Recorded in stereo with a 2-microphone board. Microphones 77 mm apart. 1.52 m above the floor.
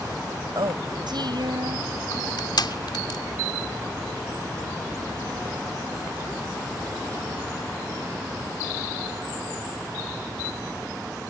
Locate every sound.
0.6 s a woman speaking: 75° right (ahead or behind); by 1.9 s 70° right (ahead or behind)
2.1 s crushing: 75° left (ahead or behind)